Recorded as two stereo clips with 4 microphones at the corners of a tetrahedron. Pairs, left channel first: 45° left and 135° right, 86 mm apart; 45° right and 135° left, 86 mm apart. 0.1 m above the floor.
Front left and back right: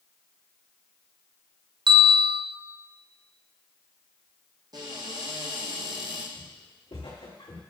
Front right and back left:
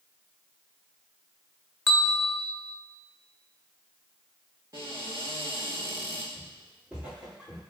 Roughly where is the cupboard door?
Behind.